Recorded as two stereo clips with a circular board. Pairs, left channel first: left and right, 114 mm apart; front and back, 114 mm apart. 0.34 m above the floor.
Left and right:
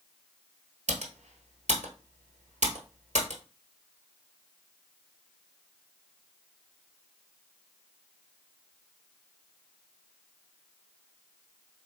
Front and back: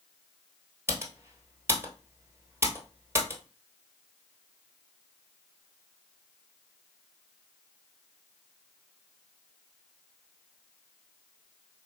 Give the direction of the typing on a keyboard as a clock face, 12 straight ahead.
4 o'clock.